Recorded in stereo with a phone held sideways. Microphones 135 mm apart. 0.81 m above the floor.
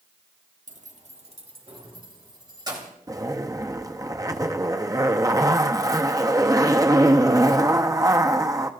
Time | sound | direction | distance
0.7 | keys jangling | 70° right (ahead or behind) | 0.9 m
3.1 | a zipper | 25° right (ahead or behind) | 0.7 m